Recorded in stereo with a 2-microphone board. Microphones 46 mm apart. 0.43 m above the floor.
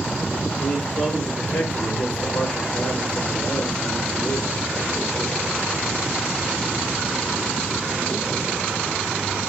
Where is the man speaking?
55° left (ahead or behind), 2.5 m.